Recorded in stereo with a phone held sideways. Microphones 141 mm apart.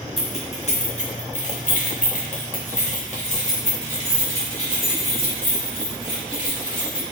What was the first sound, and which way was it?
Keys jangling, 40° left (ahead or behind).